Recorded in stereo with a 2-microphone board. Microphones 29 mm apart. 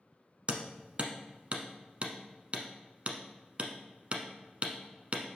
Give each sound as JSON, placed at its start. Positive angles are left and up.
{"t": 0.5, "sound": "hammering", "side_deg": -40, "distance_m": 0.9}